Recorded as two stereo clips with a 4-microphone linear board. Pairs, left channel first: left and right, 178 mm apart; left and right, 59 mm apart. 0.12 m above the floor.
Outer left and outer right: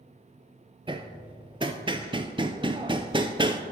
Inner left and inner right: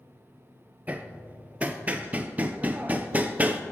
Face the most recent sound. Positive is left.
turn(degrees=-30)  # may be behind; listen again after turning